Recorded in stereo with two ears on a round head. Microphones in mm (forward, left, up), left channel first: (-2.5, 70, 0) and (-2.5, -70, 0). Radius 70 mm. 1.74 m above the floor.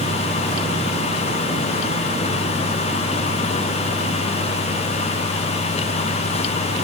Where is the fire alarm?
No fire alarm in this recording.